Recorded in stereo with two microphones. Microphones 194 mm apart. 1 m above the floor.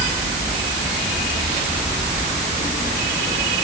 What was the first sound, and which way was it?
Only background noise.